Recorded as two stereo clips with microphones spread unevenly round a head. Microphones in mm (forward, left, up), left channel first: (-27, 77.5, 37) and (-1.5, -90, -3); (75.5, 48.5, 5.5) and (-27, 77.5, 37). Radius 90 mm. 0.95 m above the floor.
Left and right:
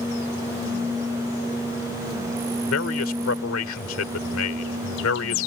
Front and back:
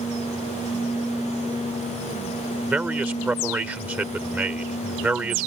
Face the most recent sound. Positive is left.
turn(degrees=90)